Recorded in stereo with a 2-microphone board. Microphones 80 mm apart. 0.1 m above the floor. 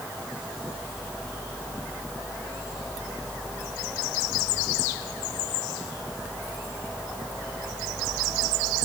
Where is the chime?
I don't hear a chime.